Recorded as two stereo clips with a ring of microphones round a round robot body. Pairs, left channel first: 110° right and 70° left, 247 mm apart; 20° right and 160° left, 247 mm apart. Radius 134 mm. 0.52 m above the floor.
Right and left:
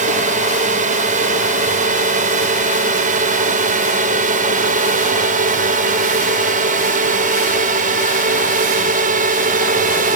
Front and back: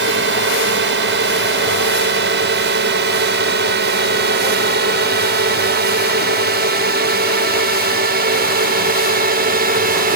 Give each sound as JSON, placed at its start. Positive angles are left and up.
{"t": 0.0, "sound": "a drone", "azimuth_deg": 125}